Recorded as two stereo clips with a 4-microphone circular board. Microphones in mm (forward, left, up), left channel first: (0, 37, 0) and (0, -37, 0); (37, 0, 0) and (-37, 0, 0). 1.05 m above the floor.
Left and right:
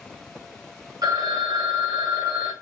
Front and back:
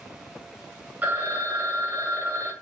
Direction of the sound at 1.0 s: 115° right.